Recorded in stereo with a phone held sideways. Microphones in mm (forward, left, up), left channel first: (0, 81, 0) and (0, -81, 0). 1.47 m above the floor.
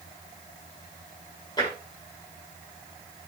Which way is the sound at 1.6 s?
25° left (ahead or behind).